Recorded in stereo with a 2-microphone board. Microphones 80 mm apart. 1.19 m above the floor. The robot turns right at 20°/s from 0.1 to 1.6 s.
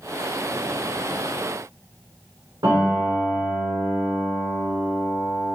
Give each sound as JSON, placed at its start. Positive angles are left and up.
{"t": 2.6, "sound": "a piano", "side_deg": -75, "distance_m": 3.0}